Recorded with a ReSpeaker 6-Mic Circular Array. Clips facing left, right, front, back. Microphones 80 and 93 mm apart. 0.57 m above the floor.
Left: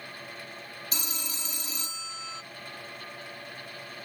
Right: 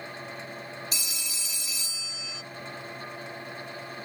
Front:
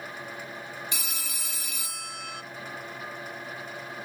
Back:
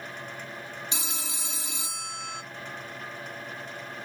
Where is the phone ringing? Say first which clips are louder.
Left 1 dB, back 2 dB; 120° left, 0.5 m.